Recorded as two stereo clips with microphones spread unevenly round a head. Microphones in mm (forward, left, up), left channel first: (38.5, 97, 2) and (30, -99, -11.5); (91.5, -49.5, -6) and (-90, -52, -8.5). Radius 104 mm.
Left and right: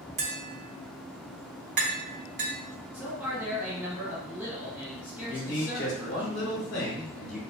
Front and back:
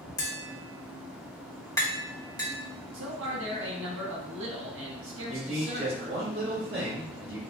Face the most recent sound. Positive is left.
turn(degrees=135)